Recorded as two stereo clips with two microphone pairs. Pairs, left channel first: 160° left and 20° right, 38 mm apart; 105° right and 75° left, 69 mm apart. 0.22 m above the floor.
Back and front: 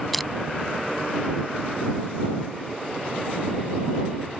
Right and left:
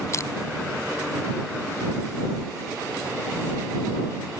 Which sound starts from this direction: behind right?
Crushing, at 0.1 s.